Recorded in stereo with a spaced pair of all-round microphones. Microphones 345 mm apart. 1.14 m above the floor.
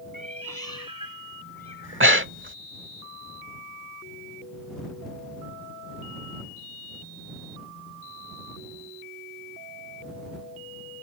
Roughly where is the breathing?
Right.